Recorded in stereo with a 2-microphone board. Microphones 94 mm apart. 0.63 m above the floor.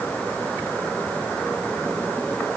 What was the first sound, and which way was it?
Only background noise.